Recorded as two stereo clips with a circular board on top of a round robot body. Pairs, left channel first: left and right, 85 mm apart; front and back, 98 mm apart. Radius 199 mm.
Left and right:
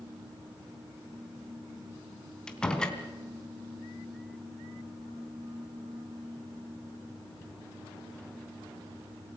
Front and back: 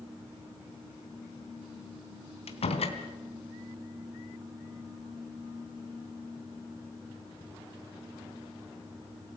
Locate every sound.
2.5 s a door slam: 10° left, 3 m